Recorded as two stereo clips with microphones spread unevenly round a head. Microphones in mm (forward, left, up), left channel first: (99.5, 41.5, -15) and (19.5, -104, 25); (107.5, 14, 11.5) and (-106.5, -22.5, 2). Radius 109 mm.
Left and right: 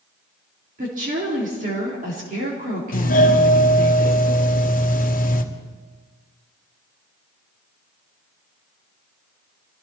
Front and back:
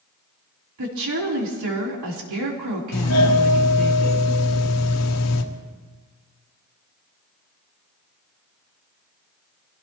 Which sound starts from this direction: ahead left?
A doorbell, at 2.9 s.